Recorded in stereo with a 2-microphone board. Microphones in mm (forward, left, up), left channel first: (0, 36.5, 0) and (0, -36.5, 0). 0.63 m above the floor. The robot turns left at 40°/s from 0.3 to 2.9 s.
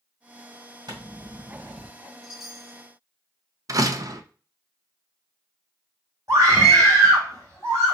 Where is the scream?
45° right (ahead or behind), 3 m.